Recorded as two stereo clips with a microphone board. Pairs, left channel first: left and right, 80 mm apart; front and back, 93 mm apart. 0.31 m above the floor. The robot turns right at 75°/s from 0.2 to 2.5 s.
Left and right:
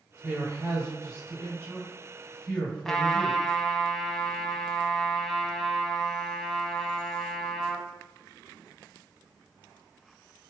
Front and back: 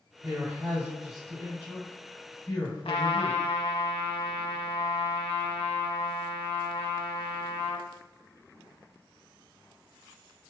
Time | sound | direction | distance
0.2 | a man speaking | 155° right | 1.9 m
2.9 | a trumpet | 5° left | 0.6 m